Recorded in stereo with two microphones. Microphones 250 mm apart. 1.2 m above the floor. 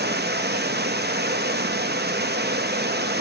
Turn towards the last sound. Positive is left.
turn(degrees=-40)  # may be behind; listen again after turning